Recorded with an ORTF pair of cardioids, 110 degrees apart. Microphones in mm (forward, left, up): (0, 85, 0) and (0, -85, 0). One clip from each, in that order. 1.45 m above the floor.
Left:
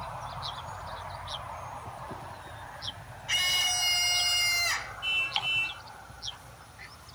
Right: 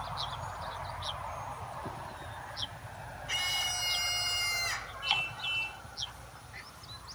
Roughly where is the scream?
Ahead left.